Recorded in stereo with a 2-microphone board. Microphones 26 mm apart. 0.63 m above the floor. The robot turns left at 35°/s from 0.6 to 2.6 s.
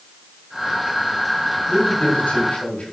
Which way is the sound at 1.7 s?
90° left.